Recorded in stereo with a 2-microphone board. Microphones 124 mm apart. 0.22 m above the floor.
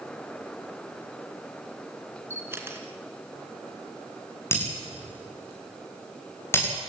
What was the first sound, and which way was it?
A camera shutter, 20° right (ahead or behind).